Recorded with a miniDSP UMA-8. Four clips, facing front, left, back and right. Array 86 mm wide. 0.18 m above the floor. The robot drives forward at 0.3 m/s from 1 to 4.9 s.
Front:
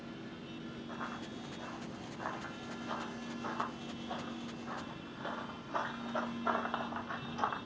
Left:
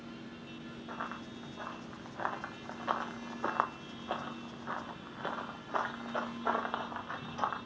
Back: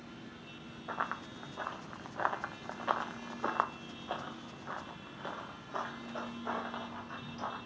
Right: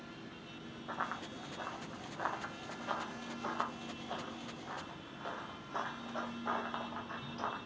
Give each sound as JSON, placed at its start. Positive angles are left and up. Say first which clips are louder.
{"t": 0.9, "sound": "running footsteps", "louder": "right 2 dB, back 7 dB", "azimuth_deg": -170, "distance_m": 1.1}